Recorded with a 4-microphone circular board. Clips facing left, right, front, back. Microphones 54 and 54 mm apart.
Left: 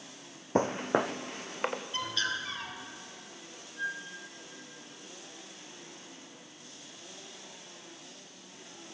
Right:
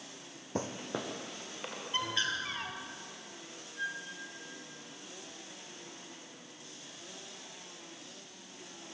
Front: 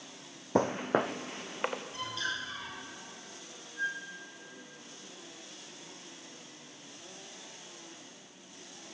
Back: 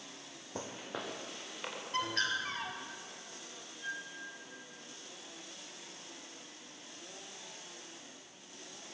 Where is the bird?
150° right, 2.5 m.